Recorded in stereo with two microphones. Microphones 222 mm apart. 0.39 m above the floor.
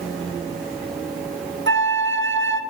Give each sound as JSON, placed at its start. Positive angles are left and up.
{"t": 1.7, "sound": "a flute", "side_deg": -60, "distance_m": 0.7}